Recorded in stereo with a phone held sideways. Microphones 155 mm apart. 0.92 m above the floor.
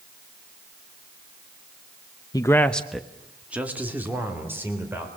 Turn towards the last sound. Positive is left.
turn(degrees=-15)  # may be behind; listen again after turning